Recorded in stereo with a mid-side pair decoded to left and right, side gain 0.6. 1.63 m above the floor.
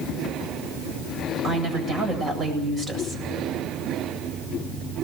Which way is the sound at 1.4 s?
35° right.